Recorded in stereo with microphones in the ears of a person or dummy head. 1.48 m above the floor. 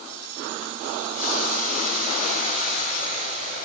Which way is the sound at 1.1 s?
45° left (ahead or behind).